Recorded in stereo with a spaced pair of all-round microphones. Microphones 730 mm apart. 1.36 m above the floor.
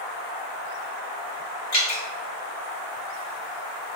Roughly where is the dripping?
Left.